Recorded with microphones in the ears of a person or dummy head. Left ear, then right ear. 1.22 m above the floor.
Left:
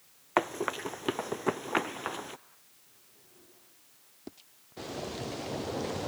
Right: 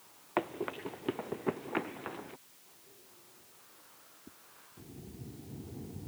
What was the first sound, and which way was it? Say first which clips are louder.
Running footsteps: left 6 dB; 70° left (ahead or behind).